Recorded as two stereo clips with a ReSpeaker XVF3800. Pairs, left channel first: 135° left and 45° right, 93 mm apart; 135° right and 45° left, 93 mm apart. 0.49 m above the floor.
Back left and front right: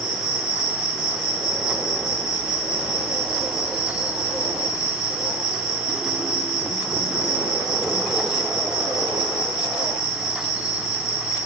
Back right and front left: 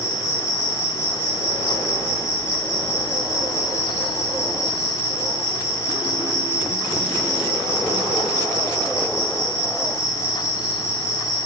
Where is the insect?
120° right, 2 m.